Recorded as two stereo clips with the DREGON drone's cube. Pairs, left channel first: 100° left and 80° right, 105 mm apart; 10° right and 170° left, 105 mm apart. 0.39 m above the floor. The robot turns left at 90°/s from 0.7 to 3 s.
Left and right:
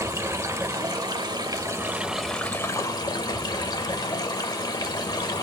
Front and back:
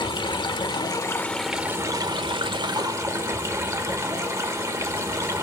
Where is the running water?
35° right, 0.7 m; by 5.4 s 120° left, 0.7 m.